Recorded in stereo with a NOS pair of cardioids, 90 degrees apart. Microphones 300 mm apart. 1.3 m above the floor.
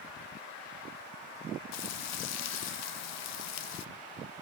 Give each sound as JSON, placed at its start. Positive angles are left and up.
{"t": 1.7, "sound": "frying", "azimuth_deg": 70, "distance_m": 0.5}